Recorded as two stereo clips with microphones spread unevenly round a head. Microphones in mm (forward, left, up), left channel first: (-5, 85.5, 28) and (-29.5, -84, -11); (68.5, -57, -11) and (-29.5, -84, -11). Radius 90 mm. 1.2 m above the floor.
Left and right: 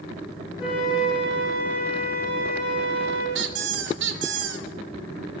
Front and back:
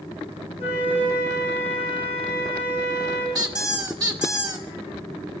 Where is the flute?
145° left, 9 m.